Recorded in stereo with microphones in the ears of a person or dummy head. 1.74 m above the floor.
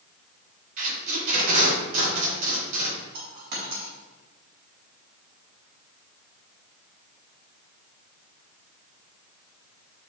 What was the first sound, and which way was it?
Tape being pulled, 50° right (ahead or behind).